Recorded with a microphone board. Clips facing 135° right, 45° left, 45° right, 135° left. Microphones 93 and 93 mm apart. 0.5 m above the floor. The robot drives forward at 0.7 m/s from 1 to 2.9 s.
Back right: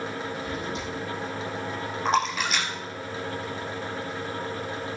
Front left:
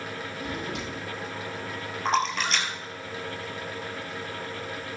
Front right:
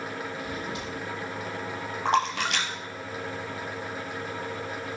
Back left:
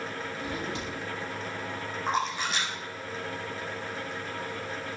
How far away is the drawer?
About 6 m.